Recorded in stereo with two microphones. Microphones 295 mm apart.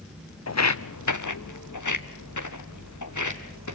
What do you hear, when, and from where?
0.5 s footsteps: 55° left (ahead or behind), 0.7 m; by 3.7 s 75° left (ahead or behind), 3 m